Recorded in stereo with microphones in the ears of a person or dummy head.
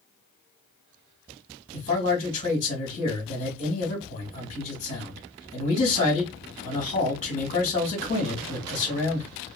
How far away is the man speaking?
About 1.2 m.